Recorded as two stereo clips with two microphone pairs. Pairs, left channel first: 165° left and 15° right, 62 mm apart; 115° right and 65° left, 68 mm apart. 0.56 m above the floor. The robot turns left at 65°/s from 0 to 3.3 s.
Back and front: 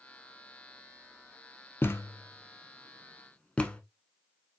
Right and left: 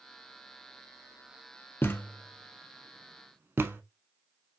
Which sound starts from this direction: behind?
A thud, at 1.8 s.